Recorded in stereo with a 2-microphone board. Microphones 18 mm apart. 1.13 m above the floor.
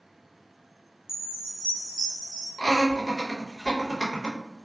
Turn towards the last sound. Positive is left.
turn(degrees=25)  # may be behind; listen again after turning